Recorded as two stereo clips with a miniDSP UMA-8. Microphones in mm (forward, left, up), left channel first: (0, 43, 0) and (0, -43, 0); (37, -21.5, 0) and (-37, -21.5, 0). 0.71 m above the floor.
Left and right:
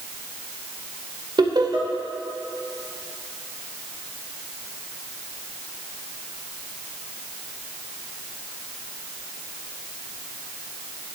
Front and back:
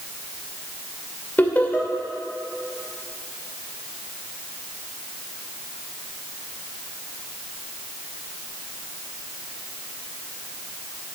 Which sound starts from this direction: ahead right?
Laughter, at 1.4 s.